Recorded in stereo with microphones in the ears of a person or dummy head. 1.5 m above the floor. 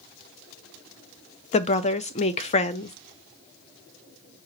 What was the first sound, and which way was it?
A woman speaking, 35° left (ahead or behind).